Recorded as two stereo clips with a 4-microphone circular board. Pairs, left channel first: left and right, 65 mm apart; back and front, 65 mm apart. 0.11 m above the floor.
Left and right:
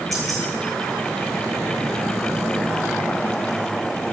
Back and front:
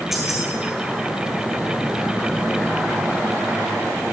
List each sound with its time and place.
0.1 s keys jangling: 85° right, 1.9 m